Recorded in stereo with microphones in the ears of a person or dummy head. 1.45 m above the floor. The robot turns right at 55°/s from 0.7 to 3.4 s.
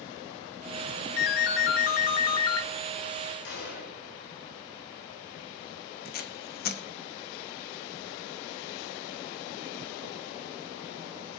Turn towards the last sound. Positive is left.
turn(degrees=50)  # may be behind; listen again after turning